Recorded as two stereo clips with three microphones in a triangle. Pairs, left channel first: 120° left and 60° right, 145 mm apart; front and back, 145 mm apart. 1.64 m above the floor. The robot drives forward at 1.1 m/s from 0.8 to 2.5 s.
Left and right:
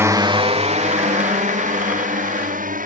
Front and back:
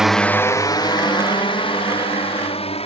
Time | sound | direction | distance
0.0 | a drone | 100° right | ?